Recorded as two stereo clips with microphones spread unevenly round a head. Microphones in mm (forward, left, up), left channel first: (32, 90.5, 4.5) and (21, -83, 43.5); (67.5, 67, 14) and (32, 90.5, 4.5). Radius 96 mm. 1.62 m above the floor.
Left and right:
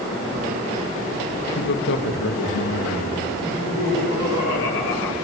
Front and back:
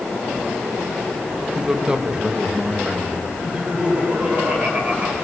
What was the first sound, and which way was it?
A man speaking, 75° left.